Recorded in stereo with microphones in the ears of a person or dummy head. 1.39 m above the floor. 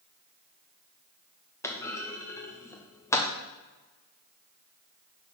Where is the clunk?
10° left (ahead or behind), 0.8 m.